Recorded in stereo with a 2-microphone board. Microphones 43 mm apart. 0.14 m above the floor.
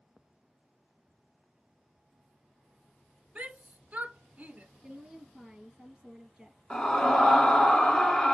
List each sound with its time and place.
3.4 s a shout: 35° right (ahead or behind), 1.4 m
4.8 s a woman speaking: 10° right (ahead or behind), 3 m
6.7 s a scream: 20° left (ahead or behind), 1.1 m